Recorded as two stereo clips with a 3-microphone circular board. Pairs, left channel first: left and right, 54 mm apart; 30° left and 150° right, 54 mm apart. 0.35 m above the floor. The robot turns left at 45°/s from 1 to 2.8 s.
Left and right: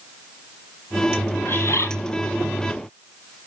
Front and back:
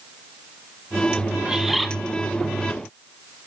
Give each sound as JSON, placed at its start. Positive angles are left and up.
{"t": 1.4, "sound": "a bird", "azimuth_deg": 135, "distance_m": 2.5}